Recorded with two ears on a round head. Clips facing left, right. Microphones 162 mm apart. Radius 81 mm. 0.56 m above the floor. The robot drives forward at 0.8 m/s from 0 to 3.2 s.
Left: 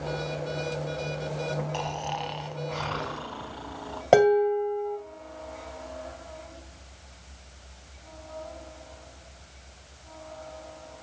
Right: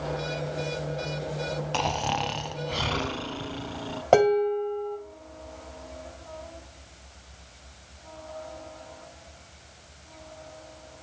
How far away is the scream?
No scream in this recording.